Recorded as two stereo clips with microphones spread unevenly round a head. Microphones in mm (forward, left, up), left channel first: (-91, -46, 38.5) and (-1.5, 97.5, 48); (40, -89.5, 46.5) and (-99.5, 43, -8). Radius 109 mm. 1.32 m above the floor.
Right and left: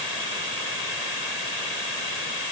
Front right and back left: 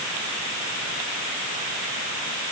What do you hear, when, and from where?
Only background noise.